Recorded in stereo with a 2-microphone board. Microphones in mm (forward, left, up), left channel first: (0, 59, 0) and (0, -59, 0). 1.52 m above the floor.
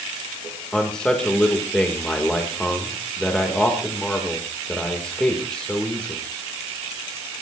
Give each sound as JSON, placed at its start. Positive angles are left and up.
{"t": 0.7, "sound": "a man speaking", "side_deg": 10, "distance_m": 2.5}